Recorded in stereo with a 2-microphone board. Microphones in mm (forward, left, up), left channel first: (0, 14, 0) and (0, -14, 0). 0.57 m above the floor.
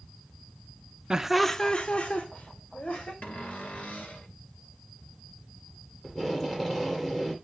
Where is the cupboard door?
65° left (ahead or behind), 1.9 m.